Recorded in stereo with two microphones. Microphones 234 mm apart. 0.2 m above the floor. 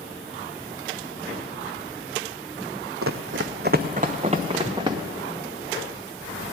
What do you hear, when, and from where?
3.0 s running footsteps: 75° right (ahead or behind), 0.5 m; by 5.0 s 20° right (ahead or behind), 1.3 m